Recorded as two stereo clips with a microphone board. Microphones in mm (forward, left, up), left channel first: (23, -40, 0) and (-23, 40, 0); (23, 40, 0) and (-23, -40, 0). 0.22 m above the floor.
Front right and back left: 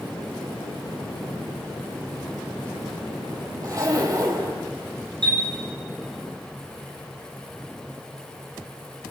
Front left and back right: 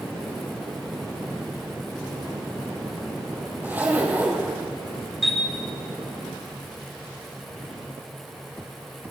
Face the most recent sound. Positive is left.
turn(degrees=150)